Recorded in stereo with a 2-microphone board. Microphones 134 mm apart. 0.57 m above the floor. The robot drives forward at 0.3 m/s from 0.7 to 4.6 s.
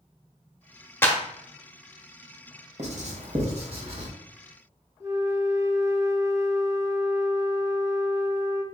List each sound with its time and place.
1.0 s a clap: 15° left (ahead or behind), 0.7 m
2.8 s writing: 60° right (ahead or behind), 0.9 m; by 4.1 s 45° right (ahead or behind), 1.1 m
5.0 s a flute: 25° right (ahead or behind), 0.7 m